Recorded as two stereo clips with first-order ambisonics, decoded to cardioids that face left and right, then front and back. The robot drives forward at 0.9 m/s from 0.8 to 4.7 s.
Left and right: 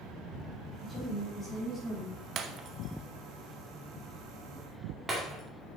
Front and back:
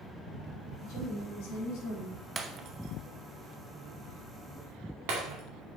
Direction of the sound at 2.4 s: 120° right.